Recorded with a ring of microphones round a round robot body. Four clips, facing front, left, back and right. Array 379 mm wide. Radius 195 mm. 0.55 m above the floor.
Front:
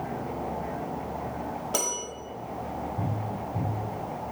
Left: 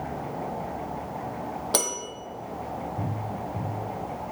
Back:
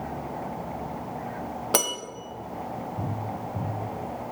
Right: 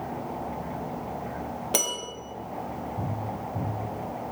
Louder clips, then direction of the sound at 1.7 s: Left 2 dB, back 6 dB; 165° left.